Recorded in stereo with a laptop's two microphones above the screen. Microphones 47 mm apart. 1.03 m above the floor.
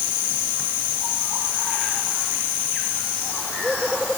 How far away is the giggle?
I don't hear a giggle.